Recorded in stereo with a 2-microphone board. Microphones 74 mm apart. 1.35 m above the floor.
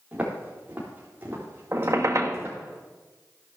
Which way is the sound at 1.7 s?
50° right (ahead or behind).